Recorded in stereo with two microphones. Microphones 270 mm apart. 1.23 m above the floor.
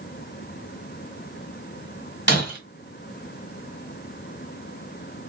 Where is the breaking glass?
45° left (ahead or behind), 1.8 m.